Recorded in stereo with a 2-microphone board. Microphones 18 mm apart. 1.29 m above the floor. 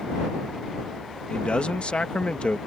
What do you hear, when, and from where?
1.3 s a man speaking: 75° left (ahead or behind)